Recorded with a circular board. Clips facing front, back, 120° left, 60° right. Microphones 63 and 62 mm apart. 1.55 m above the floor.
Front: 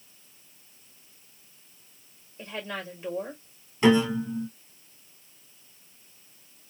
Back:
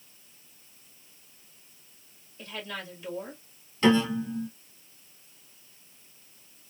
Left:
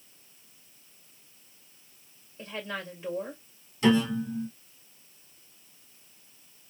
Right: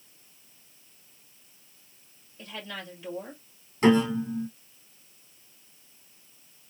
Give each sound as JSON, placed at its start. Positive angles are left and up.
{"t": 2.4, "sound": "a woman speaking", "azimuth_deg": 50, "distance_m": 1.8}
{"t": 3.8, "sound": "a piano", "azimuth_deg": -65, "distance_m": 1.4}